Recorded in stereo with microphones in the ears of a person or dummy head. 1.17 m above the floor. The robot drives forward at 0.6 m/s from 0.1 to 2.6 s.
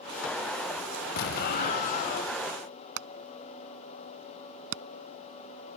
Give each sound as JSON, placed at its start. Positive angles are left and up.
{"t": 1.2, "sound": "an explosion", "side_deg": 35}
{"t": 3.0, "sound": "hammering", "side_deg": -70}